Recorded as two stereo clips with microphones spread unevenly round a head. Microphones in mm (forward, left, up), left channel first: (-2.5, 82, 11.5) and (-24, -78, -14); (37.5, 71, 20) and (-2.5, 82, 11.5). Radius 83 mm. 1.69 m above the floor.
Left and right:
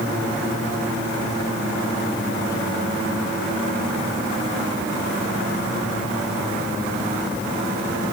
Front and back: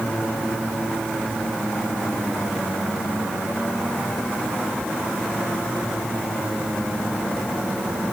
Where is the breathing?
I don't hear breathing.